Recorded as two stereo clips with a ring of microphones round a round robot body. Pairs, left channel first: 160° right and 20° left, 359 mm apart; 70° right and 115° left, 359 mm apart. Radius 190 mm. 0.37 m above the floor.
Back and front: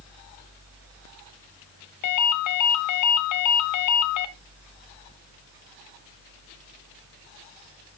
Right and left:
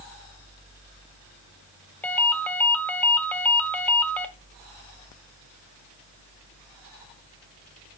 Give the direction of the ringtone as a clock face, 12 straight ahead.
5 o'clock.